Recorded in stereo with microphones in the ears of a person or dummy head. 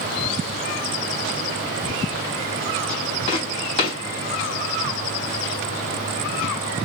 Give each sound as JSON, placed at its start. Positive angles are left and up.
{"t": 3.3, "sound": "footsteps", "side_deg": 35, "distance_m": 3.0}